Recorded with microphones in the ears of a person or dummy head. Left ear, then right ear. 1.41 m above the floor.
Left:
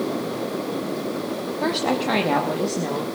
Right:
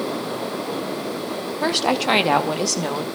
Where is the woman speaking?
20° right (ahead or behind), 0.7 m; by 3.0 s 60° right (ahead or behind), 1.6 m.